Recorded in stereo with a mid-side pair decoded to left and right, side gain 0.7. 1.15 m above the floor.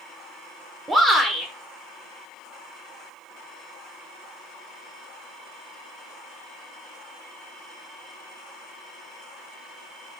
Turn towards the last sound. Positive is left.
turn(degrees=-20)